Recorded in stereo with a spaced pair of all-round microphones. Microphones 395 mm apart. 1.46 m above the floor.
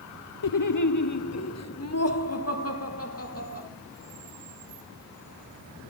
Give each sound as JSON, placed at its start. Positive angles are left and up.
{"t": 0.4, "sound": "laughter", "side_deg": 60, "distance_m": 0.6}